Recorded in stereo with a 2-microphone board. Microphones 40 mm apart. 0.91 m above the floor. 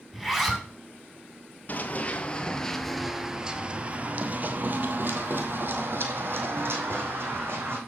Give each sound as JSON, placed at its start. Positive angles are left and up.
{"t": 0.1, "sound": "a zipper", "side_deg": -5, "distance_m": 2.5}
{"t": 1.7, "sound": "running footsteps", "side_deg": 40, "distance_m": 1.1}